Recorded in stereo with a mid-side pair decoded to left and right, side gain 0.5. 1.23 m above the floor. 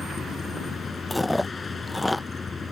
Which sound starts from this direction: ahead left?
A vehicle, at 0.0 s.